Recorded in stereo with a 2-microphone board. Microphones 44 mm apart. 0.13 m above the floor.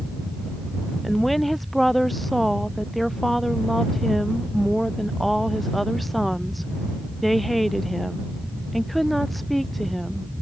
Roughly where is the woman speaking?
Centre.